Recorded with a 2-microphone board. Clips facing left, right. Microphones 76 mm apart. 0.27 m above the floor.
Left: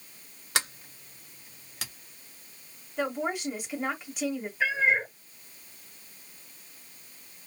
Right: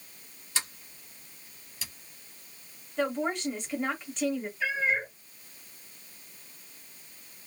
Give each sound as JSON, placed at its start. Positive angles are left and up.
{"t": 0.6, "sound": "a sliding door", "side_deg": 75, "distance_m": 1.7}
{"t": 3.0, "sound": "a woman speaking", "side_deg": 5, "distance_m": 1.4}
{"t": 4.6, "sound": "a cat meowing", "side_deg": 80, "distance_m": 3.0}